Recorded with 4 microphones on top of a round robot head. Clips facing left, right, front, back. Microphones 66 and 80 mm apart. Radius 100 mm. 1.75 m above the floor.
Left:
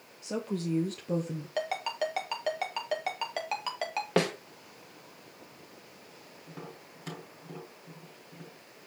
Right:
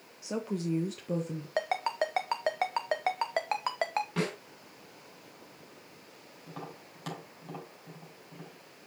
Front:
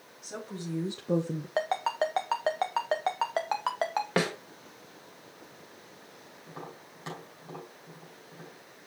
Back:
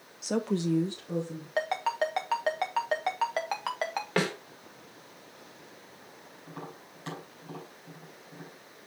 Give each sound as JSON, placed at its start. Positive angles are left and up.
{"t": 0.2, "sound": "a woman speaking", "azimuth_deg": -170, "distance_m": 1.1}
{"t": 1.6, "sound": "a ringtone", "azimuth_deg": -60, "distance_m": 0.7}
{"t": 4.2, "sound": "a snare drum", "azimuth_deg": 75, "distance_m": 1.8}
{"t": 6.5, "sound": "tapping", "azimuth_deg": -75, "distance_m": 5.0}